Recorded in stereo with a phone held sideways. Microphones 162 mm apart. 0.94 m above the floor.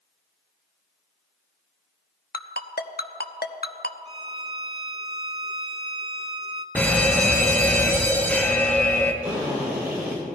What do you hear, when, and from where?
2.3 s a ringtone: 85° left, 0.8 m
4.0 s a violin: 30° right (ahead or behind), 0.6 m
6.8 s a fire alarm: 10° left (ahead or behind), 1.4 m
9.2 s a drill: 10° right (ahead or behind), 4 m